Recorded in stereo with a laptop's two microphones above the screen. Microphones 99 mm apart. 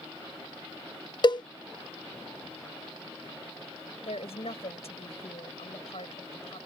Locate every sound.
1.2 s a cowbell: 45° left (ahead or behind)
4.0 s a woman speaking: 80° left